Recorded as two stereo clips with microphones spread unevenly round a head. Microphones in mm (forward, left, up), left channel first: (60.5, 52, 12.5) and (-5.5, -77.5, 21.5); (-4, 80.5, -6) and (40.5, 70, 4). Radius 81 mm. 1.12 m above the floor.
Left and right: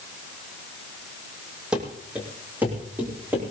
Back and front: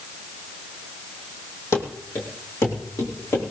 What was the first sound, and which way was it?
Running footsteps, 160° left.